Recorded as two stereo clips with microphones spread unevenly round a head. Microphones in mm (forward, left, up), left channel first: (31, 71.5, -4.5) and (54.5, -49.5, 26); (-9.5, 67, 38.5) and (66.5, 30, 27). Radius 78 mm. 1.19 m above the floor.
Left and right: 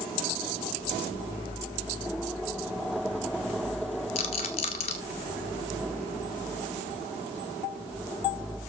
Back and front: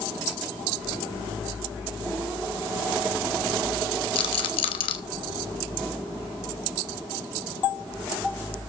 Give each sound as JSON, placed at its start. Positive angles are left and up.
{"t": 4.2, "sound": "a rattle", "azimuth_deg": 155, "distance_m": 1.1}